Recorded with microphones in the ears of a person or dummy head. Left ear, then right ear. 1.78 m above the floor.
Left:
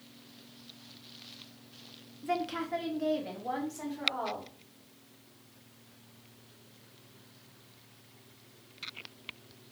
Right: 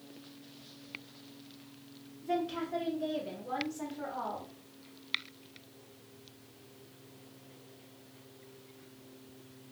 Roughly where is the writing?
No writing in this recording.